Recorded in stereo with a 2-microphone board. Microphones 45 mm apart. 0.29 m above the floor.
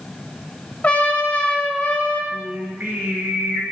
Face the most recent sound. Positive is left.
turn(degrees=-50)  # may be behind; listen again after turning